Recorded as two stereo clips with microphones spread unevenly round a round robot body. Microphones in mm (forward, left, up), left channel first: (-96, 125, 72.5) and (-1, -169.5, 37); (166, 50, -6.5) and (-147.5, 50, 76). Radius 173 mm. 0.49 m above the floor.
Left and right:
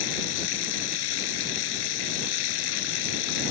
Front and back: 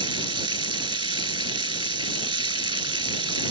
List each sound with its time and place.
0.0 s running water: 105° left